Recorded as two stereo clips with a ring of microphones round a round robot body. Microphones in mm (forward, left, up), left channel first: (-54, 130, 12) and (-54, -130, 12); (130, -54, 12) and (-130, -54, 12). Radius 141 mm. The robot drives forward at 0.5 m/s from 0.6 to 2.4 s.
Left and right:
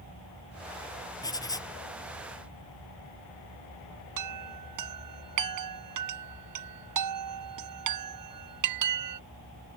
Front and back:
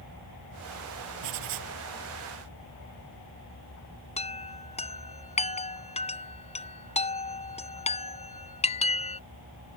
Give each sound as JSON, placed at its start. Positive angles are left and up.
{"t": 1.2, "sound": "writing", "azimuth_deg": 165}
{"t": 4.2, "sound": "a chime", "azimuth_deg": -65}